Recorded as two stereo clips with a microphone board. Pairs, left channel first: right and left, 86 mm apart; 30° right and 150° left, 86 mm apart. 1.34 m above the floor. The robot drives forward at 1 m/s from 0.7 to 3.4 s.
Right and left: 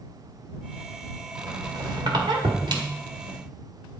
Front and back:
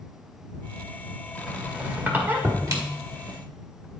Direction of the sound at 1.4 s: 65° left.